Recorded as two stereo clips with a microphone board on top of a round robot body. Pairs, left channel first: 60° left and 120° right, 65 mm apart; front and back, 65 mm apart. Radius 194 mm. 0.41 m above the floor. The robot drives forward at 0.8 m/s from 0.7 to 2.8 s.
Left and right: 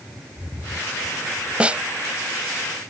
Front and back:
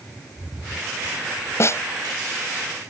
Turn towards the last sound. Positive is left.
turn(degrees=-60)